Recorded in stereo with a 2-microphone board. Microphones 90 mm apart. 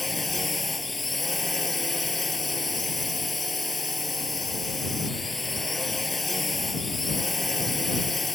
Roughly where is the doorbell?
No doorbell in this recording.